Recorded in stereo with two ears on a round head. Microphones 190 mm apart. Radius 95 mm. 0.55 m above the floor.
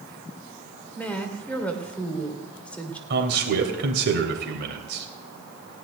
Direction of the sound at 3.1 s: 55° right (ahead or behind).